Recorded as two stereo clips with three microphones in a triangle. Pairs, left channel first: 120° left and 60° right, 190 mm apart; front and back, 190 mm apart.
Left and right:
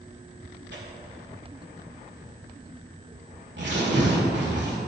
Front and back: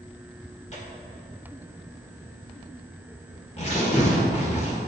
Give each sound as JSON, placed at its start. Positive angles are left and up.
{"t": 0.7, "sound": "tearing paper", "azimuth_deg": -50, "distance_m": 1.7}